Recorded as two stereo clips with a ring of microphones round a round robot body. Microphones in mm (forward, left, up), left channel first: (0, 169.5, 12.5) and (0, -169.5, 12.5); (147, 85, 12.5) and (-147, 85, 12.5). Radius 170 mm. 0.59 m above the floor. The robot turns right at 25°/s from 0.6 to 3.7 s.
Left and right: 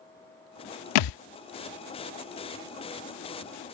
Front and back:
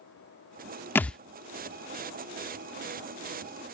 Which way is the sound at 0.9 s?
85° left.